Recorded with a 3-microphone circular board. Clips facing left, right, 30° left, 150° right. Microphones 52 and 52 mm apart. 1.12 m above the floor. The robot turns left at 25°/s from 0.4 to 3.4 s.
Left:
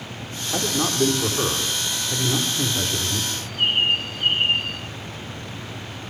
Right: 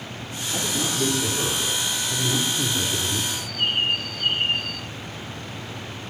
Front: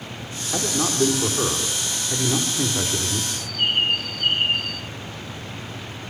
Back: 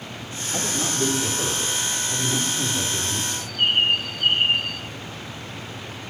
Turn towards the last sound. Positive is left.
turn(degrees=140)